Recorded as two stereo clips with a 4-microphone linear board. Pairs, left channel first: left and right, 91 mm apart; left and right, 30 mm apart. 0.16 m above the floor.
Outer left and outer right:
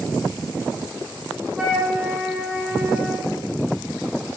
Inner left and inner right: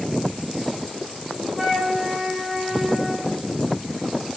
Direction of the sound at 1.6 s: 15° right (ahead or behind).